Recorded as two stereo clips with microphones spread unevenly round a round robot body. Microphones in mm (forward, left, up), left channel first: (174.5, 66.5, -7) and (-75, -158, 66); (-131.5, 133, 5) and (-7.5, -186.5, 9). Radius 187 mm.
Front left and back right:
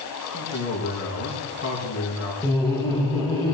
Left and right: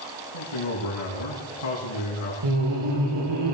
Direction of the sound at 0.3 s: 95° left.